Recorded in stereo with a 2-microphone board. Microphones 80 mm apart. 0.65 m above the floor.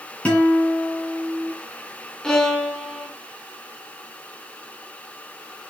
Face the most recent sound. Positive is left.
turn(degrees=5)  # may be behind; listen again after turning